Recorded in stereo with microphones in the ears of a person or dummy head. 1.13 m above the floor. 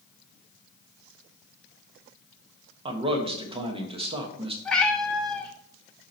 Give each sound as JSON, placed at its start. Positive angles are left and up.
{"t": 2.9, "sound": "a man speaking", "side_deg": -25, "distance_m": 1.0}
{"t": 4.7, "sound": "a cat meowing", "side_deg": 5, "distance_m": 0.8}